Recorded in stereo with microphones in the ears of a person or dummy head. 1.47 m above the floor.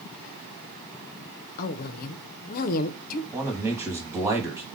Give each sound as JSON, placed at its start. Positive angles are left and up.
{"t": 1.6, "sound": "a woman speaking", "side_deg": 50, "distance_m": 0.5}
{"t": 3.3, "sound": "a man speaking", "side_deg": -10, "distance_m": 1.1}